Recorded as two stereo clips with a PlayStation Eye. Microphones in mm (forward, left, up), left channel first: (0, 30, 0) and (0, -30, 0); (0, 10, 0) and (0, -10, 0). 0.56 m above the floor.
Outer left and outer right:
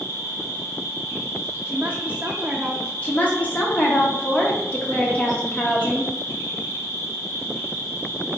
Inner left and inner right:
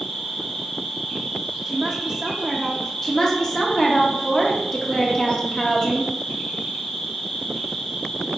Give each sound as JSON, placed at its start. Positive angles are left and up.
{"t": 0.0, "sound": "an insect", "side_deg": 60, "distance_m": 1.7}
{"t": 1.6, "sound": "a woman speaking", "side_deg": -20, "distance_m": 0.6}
{"t": 3.0, "sound": "a woman speaking", "side_deg": 25, "distance_m": 0.7}